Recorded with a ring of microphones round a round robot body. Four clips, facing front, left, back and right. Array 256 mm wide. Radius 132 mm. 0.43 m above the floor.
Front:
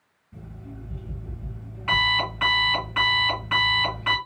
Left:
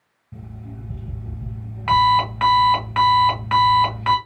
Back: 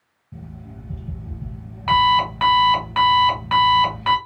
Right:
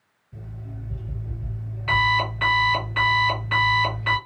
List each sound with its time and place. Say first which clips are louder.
0.3 s an alarm clock: left 2 dB, back 3 dB; 125° left, 1.6 m